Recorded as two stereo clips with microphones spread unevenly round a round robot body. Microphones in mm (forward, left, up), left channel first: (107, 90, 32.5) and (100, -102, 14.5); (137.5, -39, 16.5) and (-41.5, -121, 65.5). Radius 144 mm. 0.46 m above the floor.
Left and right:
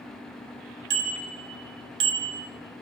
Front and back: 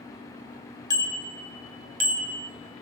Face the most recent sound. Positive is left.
turn(degrees=-125)